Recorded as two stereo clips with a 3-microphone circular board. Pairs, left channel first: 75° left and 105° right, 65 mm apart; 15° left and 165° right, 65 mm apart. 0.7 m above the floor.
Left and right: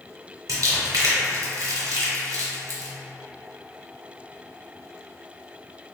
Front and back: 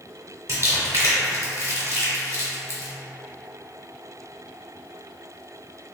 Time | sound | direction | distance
0.5 | crumpling | 130° right | 1.2 m